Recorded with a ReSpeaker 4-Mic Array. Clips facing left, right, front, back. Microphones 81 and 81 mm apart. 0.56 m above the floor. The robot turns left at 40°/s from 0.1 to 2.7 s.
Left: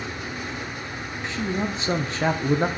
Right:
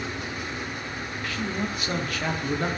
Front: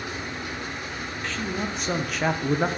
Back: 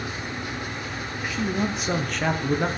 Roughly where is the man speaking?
Behind left.